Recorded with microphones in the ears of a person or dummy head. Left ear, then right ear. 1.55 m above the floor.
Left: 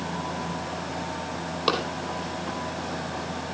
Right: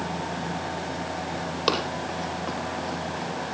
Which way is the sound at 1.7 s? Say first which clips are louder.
Even; 5° right (ahead or behind).